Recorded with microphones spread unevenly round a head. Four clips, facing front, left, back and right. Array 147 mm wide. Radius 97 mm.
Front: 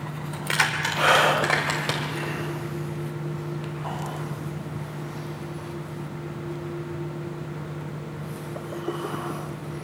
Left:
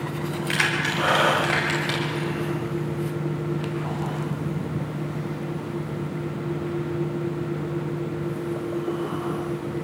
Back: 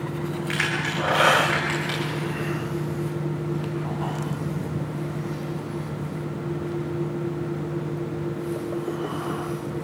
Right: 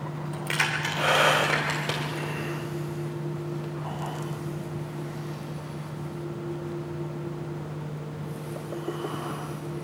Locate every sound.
0.3 s keys jangling: 40° right, 2 m; by 2.3 s 50° right, 3.5 m